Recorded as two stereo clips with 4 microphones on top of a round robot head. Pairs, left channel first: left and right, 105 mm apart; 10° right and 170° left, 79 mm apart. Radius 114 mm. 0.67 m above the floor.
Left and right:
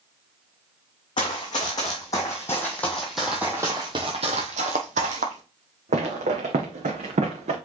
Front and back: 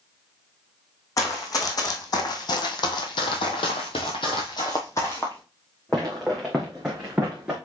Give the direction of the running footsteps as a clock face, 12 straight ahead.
11 o'clock.